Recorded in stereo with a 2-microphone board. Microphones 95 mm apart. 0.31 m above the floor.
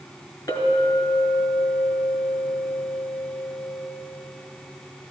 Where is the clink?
45° left (ahead or behind), 2.5 m.